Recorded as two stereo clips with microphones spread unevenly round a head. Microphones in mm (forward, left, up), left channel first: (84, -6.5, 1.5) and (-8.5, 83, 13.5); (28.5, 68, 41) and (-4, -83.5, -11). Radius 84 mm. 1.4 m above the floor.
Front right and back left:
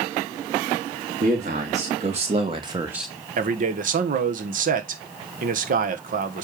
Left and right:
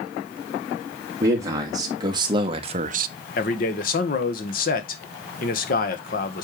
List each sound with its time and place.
1.2 s a man speaking: 175° right, 3 m; by 3.1 s 125° right, 0.5 m
3.4 s a man speaking: 120° left, 1.3 m